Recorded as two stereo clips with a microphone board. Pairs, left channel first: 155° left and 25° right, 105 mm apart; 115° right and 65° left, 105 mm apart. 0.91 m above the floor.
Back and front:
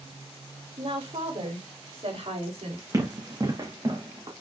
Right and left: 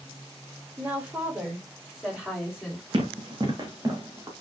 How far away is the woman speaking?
About 3.5 m.